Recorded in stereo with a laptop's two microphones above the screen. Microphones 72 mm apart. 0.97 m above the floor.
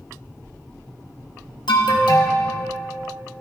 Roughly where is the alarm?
Left.